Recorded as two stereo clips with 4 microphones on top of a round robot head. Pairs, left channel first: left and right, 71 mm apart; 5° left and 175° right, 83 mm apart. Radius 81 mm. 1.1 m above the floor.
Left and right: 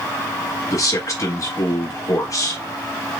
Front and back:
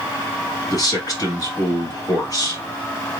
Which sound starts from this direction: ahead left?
A man speaking, at 0.7 s.